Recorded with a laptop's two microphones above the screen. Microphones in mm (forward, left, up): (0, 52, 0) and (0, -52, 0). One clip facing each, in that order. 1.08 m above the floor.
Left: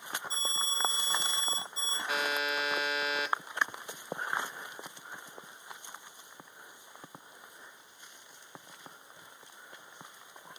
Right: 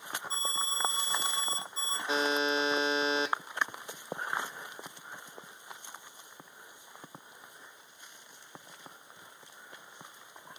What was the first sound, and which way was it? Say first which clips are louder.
An alarm: right 2 dB; 70° right (ahead or behind).